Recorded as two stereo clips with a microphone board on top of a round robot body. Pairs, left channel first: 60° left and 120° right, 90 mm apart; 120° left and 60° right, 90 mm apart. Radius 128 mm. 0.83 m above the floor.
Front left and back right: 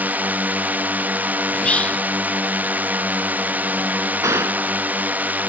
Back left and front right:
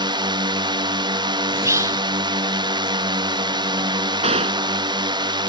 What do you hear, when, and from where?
0.0 s a drone: 50° right
1.5 s whispering: 15° right
4.2 s a gunshot: 60° right